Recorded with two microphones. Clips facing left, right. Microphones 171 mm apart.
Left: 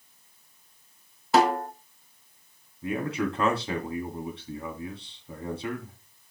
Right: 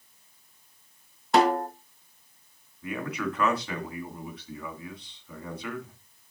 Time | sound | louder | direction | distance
1.3 | a snare drum | even | centre (ahead or behind) | 1.7 m
2.8 | a man speaking | left 3 dB | 30° left (ahead or behind) | 2.5 m